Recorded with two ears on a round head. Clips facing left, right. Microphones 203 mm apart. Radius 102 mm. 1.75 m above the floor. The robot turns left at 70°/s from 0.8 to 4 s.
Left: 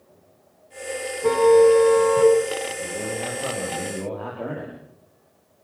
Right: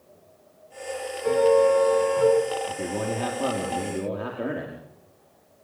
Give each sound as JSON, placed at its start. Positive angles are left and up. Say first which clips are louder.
{"t": 1.2, "sound": "a car horn", "louder": "left 5 dB", "azimuth_deg": 115, "distance_m": 7.0}
{"t": 2.7, "sound": "a man speaking", "louder": "right 1 dB", "azimuth_deg": -60, "distance_m": 5.0}